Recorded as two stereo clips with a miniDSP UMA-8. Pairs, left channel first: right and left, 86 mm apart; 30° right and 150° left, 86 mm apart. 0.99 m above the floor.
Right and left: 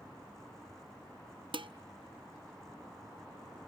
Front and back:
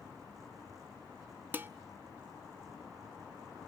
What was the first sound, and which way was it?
Dishes clattering, 85° left.